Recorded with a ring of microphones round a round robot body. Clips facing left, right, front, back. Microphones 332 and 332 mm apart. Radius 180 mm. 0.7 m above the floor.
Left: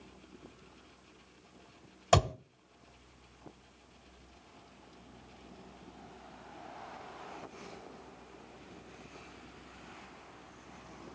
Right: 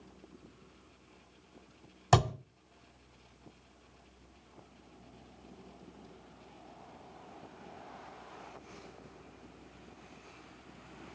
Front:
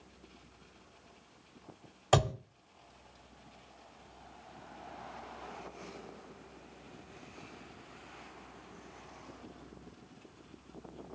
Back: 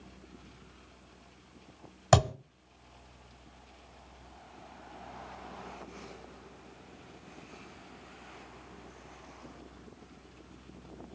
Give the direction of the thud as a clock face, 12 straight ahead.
5 o'clock.